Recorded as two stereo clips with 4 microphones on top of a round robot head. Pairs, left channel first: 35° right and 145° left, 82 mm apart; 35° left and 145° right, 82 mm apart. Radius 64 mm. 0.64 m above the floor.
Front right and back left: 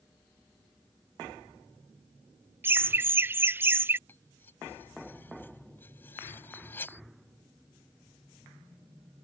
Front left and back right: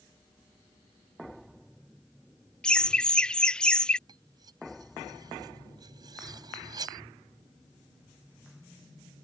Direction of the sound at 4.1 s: 105° right.